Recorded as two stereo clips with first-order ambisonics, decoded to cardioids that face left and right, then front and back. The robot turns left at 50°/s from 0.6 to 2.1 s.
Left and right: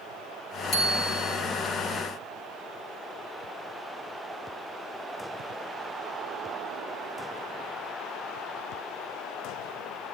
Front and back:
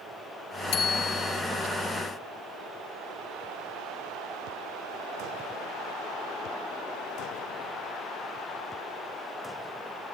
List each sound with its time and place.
0.7 s a bicycle bell: 30° left, 5 m; by 1.4 s straight ahead, 5 m